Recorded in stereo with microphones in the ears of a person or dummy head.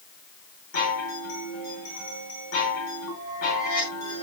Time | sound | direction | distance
0.7 | a chime | 80° left | 8.5 m